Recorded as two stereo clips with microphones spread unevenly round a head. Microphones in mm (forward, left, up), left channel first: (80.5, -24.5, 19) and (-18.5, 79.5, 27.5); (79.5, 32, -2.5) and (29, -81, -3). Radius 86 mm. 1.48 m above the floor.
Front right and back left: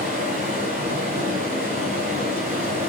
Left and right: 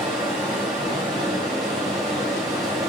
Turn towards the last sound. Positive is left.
turn(degrees=-175)